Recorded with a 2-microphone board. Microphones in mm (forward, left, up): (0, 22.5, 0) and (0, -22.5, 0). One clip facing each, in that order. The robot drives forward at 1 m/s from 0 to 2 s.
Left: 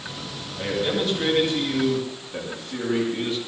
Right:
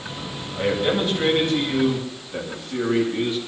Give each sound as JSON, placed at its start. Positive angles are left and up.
{"t": 0.6, "sound": "a man speaking", "side_deg": -30, "distance_m": 8.5}